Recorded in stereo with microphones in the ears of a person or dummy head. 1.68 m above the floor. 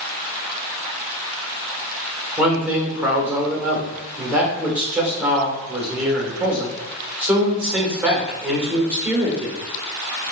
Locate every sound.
2.4 s a man speaking: 5° right (ahead or behind), 1.3 m